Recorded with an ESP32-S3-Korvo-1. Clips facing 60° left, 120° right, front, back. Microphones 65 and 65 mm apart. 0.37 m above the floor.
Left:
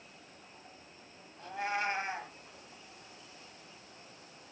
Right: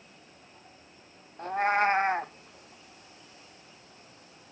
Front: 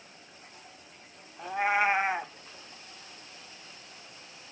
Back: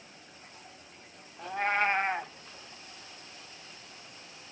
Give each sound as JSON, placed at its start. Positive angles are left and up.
{"t": 1.4, "sound": "a cat meowing", "azimuth_deg": -85, "distance_m": 0.5}